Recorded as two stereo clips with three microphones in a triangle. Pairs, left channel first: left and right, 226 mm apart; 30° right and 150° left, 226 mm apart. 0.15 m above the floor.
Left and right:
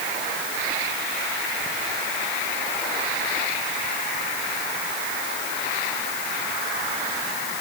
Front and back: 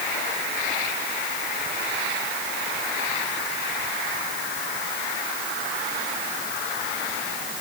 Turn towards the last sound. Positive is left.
No sound to turn to.